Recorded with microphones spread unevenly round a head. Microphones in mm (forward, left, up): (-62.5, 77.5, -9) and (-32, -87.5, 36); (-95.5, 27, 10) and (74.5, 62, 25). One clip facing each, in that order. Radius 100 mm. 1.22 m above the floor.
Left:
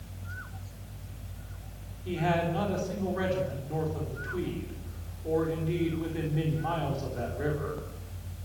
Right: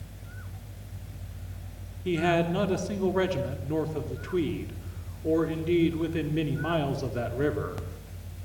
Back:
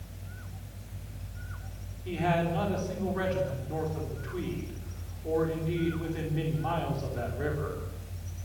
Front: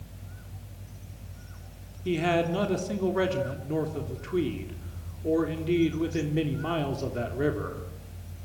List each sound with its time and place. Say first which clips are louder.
2.0 s a man speaking: right 4 dB, front 4 dB; 35° right, 3.5 m